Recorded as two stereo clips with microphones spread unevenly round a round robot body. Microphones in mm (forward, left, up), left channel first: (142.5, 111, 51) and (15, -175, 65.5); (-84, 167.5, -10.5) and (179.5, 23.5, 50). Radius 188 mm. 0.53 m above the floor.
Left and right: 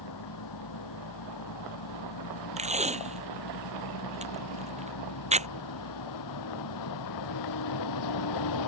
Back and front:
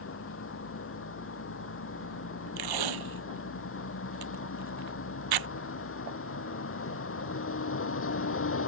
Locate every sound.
0.0 s a vehicle: 105° left
2.6 s tape being pulled: 45° right